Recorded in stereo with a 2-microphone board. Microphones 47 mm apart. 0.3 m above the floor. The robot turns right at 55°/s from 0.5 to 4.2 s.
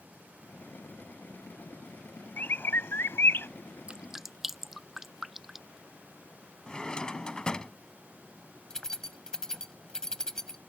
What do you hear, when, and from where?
2.4 s a bird: 50° left; by 3.5 s 110° left
3.9 s dripping: 25° right (ahead or behind); by 5.8 s 5° right (ahead or behind)
6.7 s a drawer: 15° left (ahead or behind)
8.7 s keys jangling: 15° left (ahead or behind)